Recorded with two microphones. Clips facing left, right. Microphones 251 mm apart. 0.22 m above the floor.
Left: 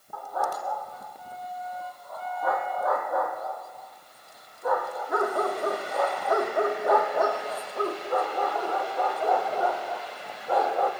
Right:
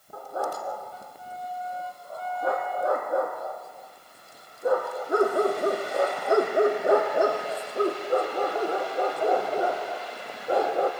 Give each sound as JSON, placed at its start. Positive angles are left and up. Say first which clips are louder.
{"t": 0.1, "sound": "a dog barking", "louder": "right 1 dB", "side_deg": -30, "distance_m": 3.5}